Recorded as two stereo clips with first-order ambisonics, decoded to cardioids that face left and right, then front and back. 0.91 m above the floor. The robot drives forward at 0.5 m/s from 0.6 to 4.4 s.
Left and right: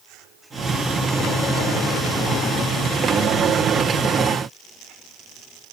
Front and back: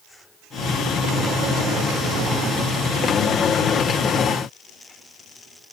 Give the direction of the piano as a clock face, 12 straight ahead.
No piano in this recording.